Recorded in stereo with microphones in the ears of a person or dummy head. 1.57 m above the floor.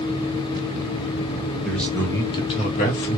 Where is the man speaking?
Centre (ahead or behind), 1.6 m; by 3.2 s 65° left (ahead or behind), 1.2 m.